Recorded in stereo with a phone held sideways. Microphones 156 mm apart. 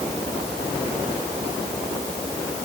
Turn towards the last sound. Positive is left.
No sound to turn to.